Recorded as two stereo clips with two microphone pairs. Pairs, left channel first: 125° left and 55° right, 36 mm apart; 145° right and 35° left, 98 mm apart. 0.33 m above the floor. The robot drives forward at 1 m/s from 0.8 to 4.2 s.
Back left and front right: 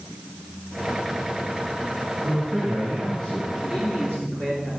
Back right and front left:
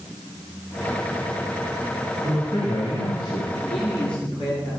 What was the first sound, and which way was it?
A man speaking, 120° right.